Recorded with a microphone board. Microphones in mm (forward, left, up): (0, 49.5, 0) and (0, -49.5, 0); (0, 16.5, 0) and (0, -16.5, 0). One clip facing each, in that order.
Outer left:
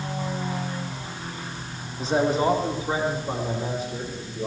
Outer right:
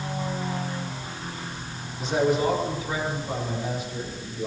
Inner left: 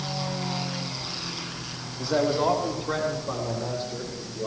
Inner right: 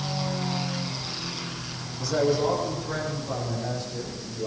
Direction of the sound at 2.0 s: 35° left (ahead or behind).